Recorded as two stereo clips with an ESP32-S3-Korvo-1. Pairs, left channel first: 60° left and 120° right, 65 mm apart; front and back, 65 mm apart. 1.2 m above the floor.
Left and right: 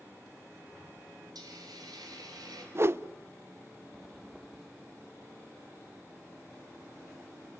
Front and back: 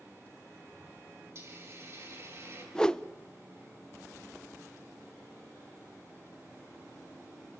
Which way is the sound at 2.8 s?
80° right.